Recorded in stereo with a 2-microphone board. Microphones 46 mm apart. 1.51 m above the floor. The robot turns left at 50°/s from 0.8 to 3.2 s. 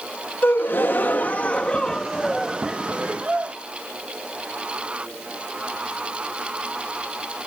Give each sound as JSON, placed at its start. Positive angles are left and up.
{"t": 0.4, "sound": "a gasp", "azimuth_deg": 80}